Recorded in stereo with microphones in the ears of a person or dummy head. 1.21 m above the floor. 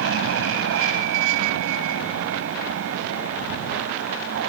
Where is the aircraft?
65° right (ahead or behind).